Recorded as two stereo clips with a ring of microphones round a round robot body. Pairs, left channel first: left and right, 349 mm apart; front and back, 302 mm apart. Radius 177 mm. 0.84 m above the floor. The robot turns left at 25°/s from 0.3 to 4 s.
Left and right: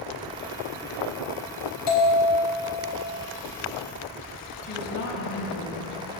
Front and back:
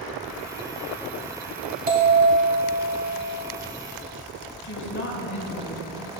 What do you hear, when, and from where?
1.9 s a bell: 120° left, 4.5 m; by 3.3 s 85° left, 4.5 m
4.6 s a woman speaking: 50° left, 4 m